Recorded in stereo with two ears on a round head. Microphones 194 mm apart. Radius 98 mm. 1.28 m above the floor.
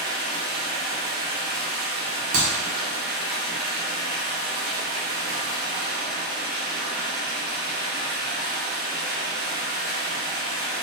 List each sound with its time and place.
0.0 s running water: 45° right (ahead or behind), 1.0 m
2.3 s a clap: 65° right (ahead or behind), 0.9 m